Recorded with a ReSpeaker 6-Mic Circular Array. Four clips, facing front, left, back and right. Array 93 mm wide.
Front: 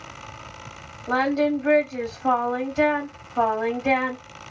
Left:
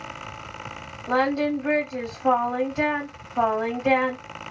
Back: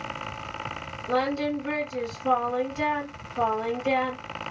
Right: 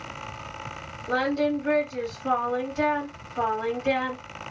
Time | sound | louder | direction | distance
1.1 | singing | left 2 dB, front 4 dB | 35° left | 2.0 m